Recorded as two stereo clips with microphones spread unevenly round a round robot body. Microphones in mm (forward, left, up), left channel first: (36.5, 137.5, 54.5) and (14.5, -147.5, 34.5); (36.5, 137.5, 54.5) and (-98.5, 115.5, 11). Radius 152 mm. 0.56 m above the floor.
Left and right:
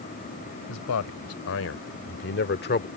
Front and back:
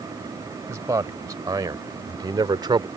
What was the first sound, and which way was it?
A man speaking, 125° left.